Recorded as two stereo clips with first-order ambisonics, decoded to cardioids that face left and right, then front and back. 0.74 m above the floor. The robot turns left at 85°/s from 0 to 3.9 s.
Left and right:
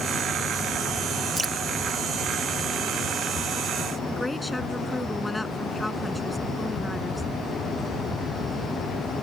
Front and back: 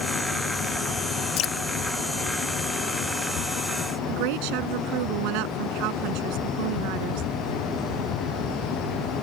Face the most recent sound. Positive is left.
turn(degrees=175)